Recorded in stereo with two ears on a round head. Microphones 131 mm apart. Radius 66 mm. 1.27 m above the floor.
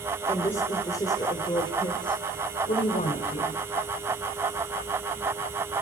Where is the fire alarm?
No fire alarm in this recording.